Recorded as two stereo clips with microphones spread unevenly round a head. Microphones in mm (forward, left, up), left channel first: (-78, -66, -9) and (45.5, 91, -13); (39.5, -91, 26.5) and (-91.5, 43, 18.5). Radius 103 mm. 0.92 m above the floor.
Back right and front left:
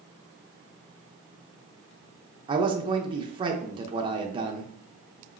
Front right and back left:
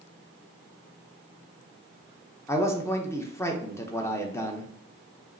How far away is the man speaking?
About 0.7 m.